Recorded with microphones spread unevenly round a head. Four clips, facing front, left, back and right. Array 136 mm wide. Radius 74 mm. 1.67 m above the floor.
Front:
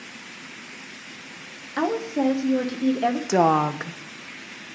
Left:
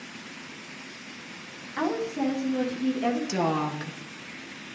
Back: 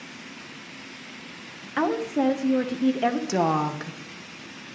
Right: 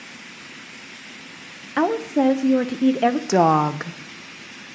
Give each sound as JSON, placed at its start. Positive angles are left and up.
{"t": 1.8, "sound": "a woman speaking", "azimuth_deg": -80, "distance_m": 1.5}
{"t": 3.3, "sound": "a woman speaking", "azimuth_deg": -60, "distance_m": 1.0}